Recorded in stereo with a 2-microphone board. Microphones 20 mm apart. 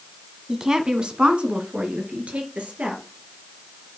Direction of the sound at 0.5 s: 20° right (ahead or behind).